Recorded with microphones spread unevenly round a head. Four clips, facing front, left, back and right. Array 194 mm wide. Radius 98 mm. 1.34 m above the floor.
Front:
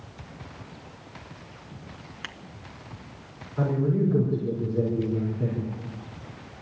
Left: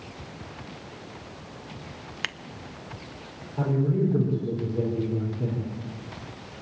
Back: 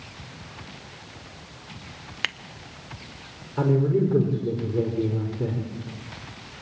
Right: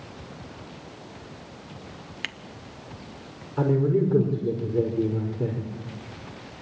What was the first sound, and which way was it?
Scissors, 160° left.